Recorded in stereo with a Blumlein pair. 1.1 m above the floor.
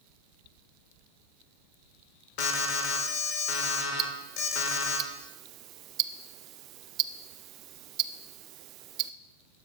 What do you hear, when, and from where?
2.4 s an alarm: 40° left, 2 m
4.0 s ticking: 35° right, 0.5 m